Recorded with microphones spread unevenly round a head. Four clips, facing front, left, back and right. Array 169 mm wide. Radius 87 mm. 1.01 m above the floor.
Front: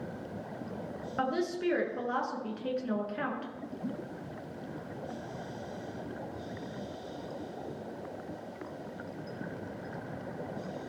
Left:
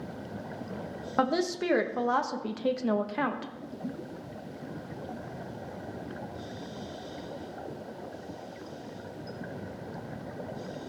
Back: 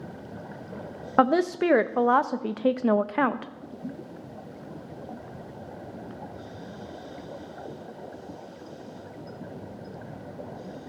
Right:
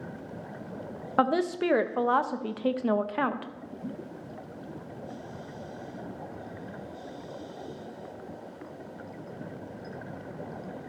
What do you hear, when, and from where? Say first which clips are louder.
1.2 s a woman speaking: right 2 dB, back 10 dB; 175° right, 0.6 m